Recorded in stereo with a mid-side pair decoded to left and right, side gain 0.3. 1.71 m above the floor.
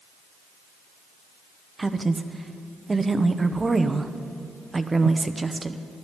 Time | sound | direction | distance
1.8 | a woman speaking | 35° right | 0.9 m